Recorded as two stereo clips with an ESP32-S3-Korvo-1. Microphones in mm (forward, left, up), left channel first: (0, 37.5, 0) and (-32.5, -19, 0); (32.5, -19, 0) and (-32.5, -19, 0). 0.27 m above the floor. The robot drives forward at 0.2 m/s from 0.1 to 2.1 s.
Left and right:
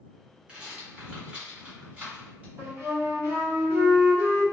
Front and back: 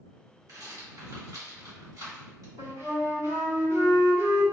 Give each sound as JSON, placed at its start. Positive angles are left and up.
{"t": 0.5, "sound": "a rattle", "azimuth_deg": 170, "distance_m": 1.3}
{"t": 2.6, "sound": "a flute", "azimuth_deg": -160, "distance_m": 1.9}